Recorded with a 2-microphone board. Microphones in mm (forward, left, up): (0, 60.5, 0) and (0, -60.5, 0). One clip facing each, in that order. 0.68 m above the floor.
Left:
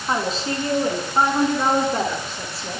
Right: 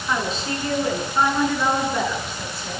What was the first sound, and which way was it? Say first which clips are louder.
A woman speaking: left 2 dB; 35° left (ahead or behind).